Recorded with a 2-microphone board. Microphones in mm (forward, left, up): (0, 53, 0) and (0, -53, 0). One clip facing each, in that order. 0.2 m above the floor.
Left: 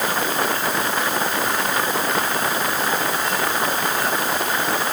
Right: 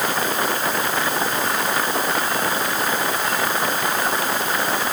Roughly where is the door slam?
No door slam in this recording.